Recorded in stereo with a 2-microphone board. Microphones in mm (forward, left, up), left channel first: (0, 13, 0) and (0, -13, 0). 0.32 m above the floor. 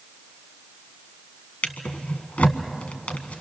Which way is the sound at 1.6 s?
65° left (ahead or behind).